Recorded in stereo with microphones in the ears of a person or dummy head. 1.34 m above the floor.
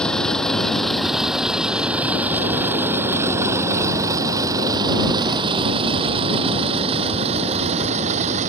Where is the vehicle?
10° left (ahead or behind); by 8.5 s 35° right (ahead or behind).